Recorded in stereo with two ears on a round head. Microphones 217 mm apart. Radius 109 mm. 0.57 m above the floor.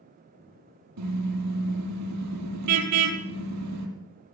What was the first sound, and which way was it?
A car horn, 80° right.